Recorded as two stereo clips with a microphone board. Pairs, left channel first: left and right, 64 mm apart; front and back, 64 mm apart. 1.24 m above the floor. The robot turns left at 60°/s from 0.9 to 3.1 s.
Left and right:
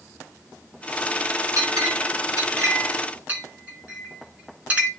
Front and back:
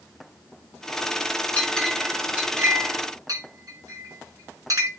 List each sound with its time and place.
1.6 s a clink: 60° right, 2 m; by 4.9 s 155° right, 2 m